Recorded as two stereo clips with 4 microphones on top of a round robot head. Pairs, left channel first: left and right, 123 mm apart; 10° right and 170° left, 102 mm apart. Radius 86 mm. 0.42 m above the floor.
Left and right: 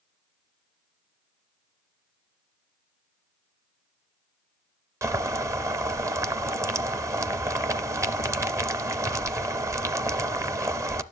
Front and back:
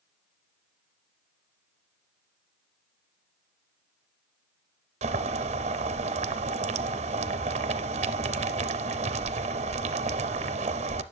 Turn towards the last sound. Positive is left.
turn(degrees=-155)